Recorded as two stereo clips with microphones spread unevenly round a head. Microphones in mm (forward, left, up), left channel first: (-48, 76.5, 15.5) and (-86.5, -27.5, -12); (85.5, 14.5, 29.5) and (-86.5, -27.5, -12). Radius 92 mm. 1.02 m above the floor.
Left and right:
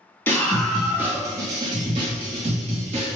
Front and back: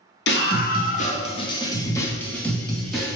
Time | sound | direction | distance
0.3 | a scream | 15° right | 0.9 m